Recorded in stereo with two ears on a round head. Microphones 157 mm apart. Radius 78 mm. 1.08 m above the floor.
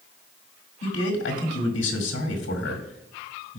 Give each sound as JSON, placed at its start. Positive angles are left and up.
{"t": 0.8, "sound": "a man speaking", "side_deg": 80, "distance_m": 1.9}